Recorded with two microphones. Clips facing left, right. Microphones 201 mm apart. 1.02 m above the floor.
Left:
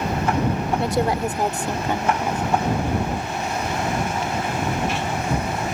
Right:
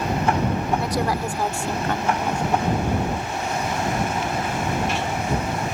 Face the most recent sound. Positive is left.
turn(degrees=5)  # may be behind; listen again after turning